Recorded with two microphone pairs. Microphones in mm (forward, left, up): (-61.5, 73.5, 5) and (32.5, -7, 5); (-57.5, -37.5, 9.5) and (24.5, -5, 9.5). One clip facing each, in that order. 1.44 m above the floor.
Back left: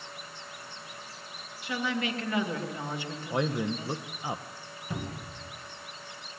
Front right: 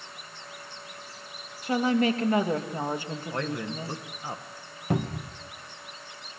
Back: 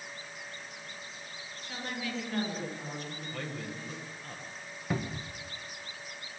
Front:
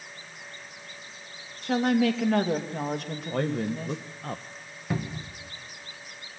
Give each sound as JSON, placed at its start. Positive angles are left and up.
{"t": 1.6, "sound": "a woman speaking", "azimuth_deg": 10, "distance_m": 2.5}
{"t": 3.3, "sound": "a man speaking", "azimuth_deg": 65, "distance_m": 0.9}
{"t": 4.9, "sound": "a cupboard door", "azimuth_deg": -70, "distance_m": 1.5}